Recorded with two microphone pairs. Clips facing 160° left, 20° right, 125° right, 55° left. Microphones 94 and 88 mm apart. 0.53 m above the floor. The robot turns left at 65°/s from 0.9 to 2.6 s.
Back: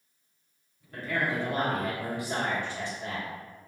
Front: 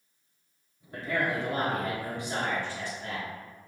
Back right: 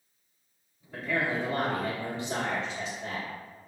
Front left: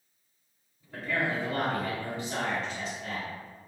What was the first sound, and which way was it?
A man speaking, 45° right.